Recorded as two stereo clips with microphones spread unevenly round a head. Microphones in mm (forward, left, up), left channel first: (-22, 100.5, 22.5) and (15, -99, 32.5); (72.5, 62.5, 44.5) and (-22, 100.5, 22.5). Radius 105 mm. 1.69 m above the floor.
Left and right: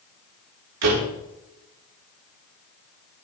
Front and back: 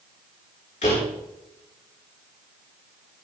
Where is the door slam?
75° right, 4.5 m.